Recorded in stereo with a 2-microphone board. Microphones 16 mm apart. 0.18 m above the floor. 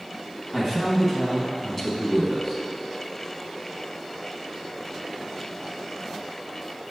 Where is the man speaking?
20° left (ahead or behind), 1.0 m.